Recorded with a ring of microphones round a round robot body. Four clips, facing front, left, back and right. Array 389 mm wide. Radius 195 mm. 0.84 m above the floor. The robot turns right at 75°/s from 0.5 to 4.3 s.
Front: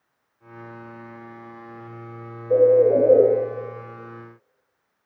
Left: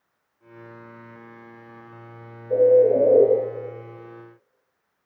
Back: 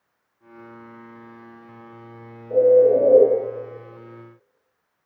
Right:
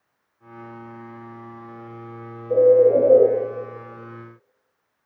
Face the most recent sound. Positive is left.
turn(degrees=110)